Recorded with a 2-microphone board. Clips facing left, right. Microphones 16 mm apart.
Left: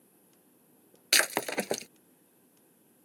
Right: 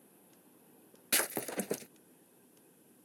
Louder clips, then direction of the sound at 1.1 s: Left 8 dB; 60° left (ahead or behind).